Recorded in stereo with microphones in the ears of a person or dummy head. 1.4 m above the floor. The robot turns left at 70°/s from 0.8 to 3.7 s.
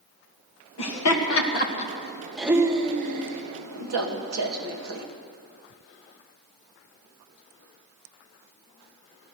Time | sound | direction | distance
0.8 | laughter | 65° left (ahead or behind) | 1.9 m